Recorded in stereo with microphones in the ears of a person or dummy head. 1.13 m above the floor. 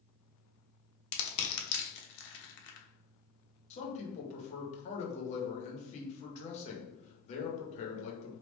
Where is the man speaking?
45° left (ahead or behind), 0.9 m.